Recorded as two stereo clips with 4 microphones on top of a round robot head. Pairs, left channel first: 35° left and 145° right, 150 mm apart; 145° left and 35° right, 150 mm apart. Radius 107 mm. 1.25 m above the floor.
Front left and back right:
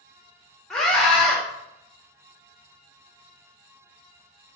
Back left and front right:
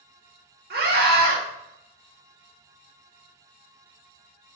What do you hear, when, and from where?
0.7 s a scream: 50° right, 3.5 m